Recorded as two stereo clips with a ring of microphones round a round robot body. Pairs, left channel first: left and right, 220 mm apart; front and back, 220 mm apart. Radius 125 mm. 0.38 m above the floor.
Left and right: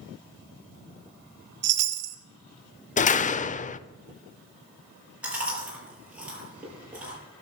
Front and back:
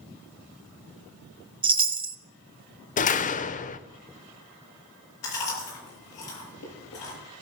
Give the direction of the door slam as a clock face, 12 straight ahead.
11 o'clock.